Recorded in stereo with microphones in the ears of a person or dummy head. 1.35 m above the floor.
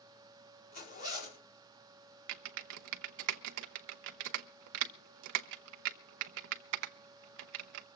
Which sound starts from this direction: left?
A zipper, at 0.7 s.